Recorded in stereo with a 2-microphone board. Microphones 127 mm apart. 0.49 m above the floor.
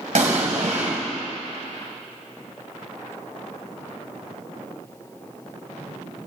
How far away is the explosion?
About 2.5 m.